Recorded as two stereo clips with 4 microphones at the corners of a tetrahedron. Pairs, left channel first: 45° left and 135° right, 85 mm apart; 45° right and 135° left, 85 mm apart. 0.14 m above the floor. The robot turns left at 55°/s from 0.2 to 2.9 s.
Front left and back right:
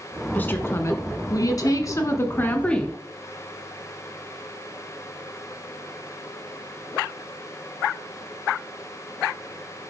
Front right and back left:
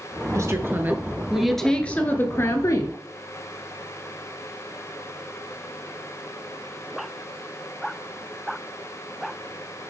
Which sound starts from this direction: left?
A woman speaking, at 0.3 s.